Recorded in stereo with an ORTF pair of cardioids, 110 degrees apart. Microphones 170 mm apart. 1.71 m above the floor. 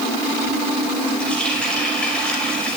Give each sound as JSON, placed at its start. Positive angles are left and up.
{"t": 1.2, "sound": "a running tap", "azimuth_deg": 5, "distance_m": 6.0}